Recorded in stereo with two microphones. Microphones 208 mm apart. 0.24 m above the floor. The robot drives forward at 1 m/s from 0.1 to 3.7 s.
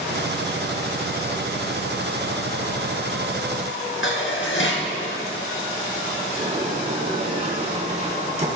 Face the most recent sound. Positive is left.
turn(degrees=-35)  # may be behind; listen again after turning